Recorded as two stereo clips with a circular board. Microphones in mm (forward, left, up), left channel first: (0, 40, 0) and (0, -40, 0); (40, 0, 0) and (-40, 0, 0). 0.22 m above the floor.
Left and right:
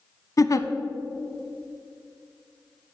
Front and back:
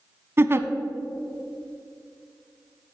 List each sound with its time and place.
0.4 s a giggle: 125° left, 0.5 m